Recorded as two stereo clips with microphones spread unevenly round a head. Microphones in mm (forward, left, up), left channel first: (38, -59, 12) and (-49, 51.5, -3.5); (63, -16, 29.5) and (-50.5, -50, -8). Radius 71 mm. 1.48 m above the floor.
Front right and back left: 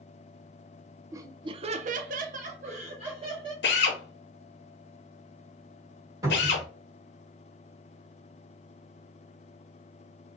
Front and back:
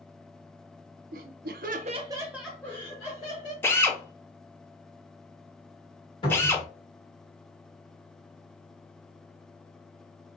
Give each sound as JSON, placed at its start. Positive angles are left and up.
{"t": 1.1, "sound": "laughter", "azimuth_deg": -160, "distance_m": 0.8}
{"t": 3.6, "sound": "a drill", "azimuth_deg": -50, "distance_m": 0.8}
{"t": 6.2, "sound": "a cupboard door", "azimuth_deg": 60, "distance_m": 2.0}